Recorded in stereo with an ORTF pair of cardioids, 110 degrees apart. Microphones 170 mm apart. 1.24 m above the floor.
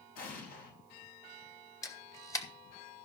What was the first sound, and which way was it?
An explosion, 60° left.